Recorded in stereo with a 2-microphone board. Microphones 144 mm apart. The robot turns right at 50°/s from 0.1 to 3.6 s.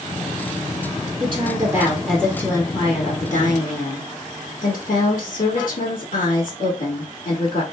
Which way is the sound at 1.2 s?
45° right.